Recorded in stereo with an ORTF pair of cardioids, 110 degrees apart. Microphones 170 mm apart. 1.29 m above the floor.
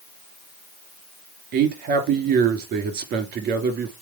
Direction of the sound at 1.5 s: 70° right.